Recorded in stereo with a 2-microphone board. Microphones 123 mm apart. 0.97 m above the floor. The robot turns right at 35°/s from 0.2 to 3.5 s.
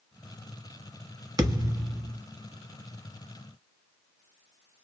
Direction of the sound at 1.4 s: 30° right (ahead or behind).